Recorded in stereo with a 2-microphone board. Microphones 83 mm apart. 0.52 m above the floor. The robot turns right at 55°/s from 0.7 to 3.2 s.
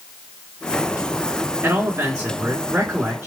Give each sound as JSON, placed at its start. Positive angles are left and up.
{"t": 1.6, "sound": "a man speaking", "azimuth_deg": -135, "distance_m": 1.6}